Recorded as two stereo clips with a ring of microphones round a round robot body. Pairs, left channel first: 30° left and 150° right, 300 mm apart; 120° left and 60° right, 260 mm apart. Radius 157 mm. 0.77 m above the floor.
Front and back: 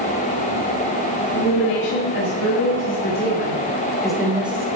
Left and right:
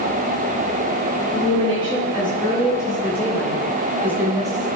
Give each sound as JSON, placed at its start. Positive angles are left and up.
{"t": 1.3, "sound": "a woman speaking", "azimuth_deg": 50, "distance_m": 2.0}